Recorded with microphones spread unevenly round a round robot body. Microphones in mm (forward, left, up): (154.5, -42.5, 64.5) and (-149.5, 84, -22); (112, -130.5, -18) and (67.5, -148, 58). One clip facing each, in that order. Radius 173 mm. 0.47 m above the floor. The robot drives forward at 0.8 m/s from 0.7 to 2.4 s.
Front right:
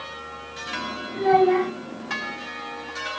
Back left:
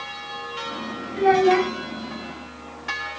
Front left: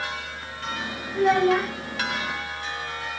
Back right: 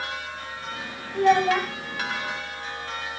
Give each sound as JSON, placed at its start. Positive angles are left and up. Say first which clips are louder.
{"t": 1.1, "sound": "a child speaking", "louder": "back left 1 dB, even", "azimuth_deg": -140, "distance_m": 1.4}